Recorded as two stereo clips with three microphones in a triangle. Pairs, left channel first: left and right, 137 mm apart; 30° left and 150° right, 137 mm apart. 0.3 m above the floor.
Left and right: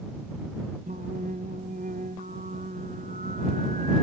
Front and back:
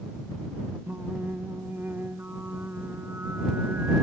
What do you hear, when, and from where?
0.9 s singing: 75° right